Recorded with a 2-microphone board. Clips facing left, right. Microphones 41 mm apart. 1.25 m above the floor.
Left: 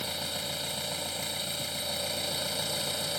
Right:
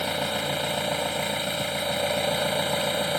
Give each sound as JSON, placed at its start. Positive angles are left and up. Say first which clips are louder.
{"t": 0.0, "sound": "an engine running", "louder": "right 9 dB", "side_deg": -40}